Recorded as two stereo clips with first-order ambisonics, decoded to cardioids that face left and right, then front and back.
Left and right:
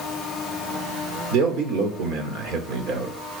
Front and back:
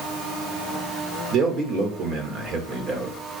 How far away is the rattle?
I don't hear a rattle.